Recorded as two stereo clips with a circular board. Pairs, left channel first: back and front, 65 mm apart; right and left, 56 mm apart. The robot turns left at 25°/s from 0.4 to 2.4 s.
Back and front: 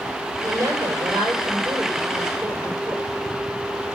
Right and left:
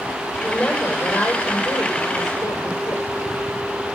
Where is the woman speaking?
10° right, 4 m; by 3.0 s 60° right, 4 m.